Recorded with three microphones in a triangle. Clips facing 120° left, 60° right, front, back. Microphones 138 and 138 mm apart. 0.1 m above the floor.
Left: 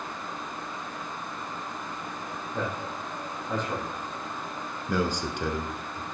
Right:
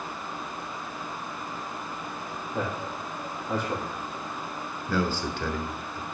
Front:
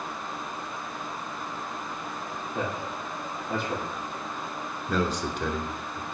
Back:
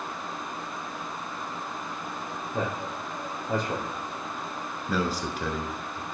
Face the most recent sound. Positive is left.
turn(degrees=95)